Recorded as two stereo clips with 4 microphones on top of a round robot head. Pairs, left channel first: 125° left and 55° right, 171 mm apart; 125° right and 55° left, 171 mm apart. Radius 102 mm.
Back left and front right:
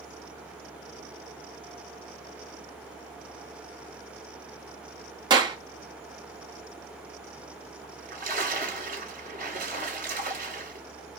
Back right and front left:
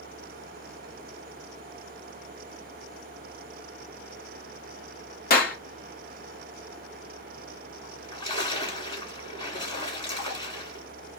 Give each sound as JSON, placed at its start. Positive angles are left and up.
{"t": 5.3, "sound": "a clap", "azimuth_deg": -115, "distance_m": 1.0}
{"t": 7.8, "sound": "a splash", "azimuth_deg": -70, "distance_m": 1.7}